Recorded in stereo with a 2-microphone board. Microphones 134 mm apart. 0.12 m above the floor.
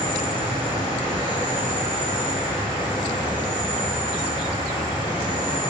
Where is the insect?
35° left (ahead or behind), 3 m.